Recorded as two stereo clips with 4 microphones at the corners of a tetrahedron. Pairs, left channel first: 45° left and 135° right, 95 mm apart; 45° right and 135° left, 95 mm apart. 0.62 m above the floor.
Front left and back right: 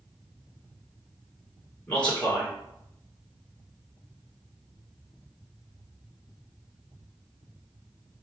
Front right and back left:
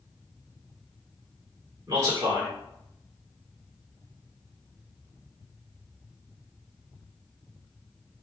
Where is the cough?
I don't hear a cough.